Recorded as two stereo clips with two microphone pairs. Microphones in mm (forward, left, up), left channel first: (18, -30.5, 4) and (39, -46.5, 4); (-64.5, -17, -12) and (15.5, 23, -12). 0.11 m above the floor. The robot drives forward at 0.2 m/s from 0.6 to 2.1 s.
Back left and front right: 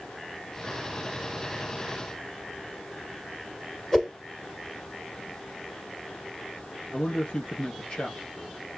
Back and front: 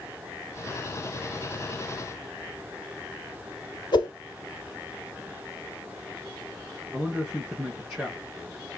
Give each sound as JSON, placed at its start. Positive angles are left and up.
{"t": 3.9, "sound": "a whoosh", "azimuth_deg": -145, "distance_m": 1.2}
{"t": 6.9, "sound": "a man speaking", "azimuth_deg": 110, "distance_m": 3.5}